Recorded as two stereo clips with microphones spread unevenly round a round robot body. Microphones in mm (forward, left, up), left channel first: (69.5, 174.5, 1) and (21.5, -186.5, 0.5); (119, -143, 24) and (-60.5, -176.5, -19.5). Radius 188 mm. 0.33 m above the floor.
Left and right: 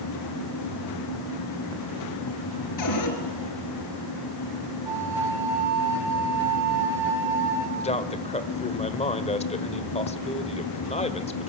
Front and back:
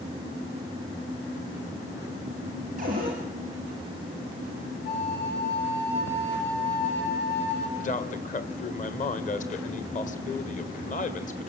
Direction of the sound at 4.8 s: 15° right.